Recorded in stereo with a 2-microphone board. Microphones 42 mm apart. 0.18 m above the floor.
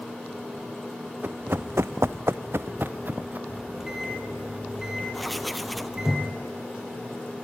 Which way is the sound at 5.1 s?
Centre (ahead or behind).